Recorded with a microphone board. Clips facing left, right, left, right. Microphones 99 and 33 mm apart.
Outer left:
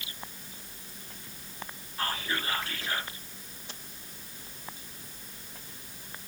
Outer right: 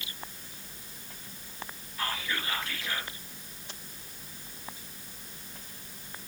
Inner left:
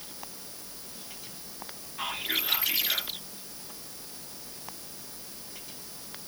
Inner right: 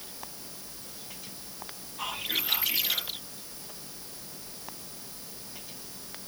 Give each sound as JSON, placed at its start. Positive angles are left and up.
{"t": 2.0, "sound": "whispering", "side_deg": 35, "distance_m": 1.3}